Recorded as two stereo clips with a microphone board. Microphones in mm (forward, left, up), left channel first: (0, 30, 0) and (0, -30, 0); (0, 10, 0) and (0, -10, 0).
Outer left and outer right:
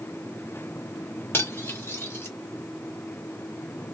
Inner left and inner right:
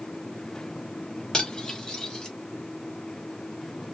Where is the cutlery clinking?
35° left (ahead or behind), 0.8 m.